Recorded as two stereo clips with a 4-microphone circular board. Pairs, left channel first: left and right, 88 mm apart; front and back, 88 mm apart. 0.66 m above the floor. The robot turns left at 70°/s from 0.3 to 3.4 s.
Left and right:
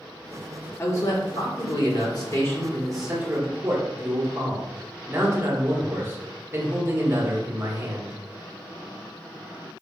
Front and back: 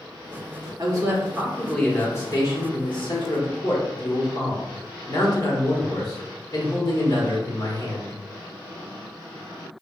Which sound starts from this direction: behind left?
A man speaking, at 0.8 s.